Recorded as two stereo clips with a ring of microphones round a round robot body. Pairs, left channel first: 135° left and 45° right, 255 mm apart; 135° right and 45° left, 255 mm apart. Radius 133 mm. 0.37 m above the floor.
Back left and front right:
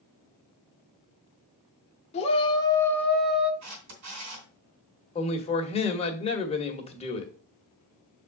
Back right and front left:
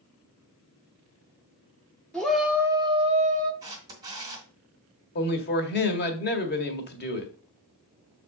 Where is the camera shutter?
30° right, 2.5 m.